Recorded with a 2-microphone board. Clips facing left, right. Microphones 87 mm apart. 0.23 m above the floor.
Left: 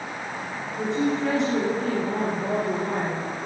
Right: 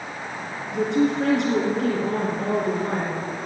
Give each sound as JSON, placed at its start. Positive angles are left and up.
{"t": 0.7, "sound": "a woman speaking", "side_deg": -70, "distance_m": 2.5}